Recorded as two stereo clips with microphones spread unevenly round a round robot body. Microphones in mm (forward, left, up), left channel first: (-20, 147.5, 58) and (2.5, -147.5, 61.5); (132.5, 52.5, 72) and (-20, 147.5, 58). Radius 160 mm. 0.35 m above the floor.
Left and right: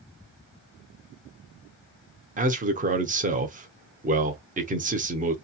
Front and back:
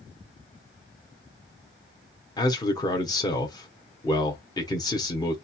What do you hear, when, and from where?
2.4 s a man speaking: 80° right, 0.8 m